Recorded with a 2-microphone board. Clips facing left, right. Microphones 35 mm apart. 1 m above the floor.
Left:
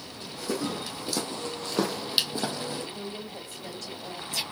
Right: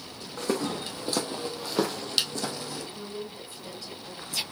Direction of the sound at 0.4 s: 50° right (ahead or behind).